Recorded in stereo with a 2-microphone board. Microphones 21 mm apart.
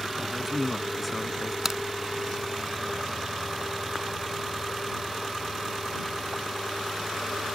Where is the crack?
20° right (ahead or behind).